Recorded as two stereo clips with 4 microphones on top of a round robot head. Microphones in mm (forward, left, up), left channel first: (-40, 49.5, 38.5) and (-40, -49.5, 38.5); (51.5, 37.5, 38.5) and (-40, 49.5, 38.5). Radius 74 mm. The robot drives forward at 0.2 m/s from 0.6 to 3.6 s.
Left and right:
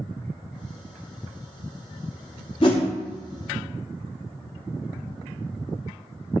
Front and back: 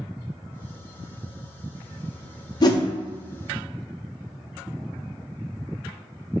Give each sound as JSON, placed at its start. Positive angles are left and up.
{"t": 2.6, "sound": "a whoosh", "azimuth_deg": 35, "distance_m": 0.5}